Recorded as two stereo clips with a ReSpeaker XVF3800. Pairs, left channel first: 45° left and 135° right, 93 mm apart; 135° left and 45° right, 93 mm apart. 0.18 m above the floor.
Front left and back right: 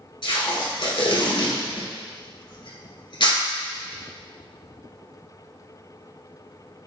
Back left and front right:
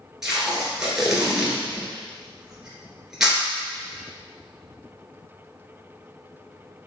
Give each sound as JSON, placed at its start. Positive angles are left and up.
{"t": 0.2, "sound": "tape being pulled", "azimuth_deg": 40, "distance_m": 1.5}